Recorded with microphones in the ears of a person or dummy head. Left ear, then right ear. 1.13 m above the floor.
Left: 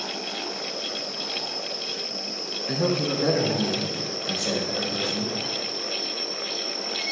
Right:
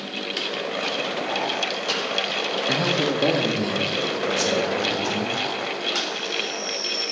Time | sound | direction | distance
2.7 | a man speaking | 20° right (ahead or behind) | 0.7 m